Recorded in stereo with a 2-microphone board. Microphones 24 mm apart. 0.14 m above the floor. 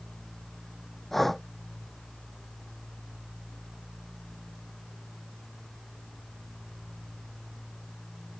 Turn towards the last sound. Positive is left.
turn(degrees=10)  # may be behind; listen again after turning